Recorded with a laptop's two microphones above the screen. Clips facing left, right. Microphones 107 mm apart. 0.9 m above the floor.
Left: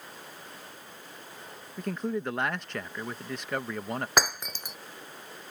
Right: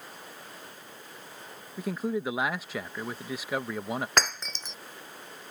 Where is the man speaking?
5° right (ahead or behind).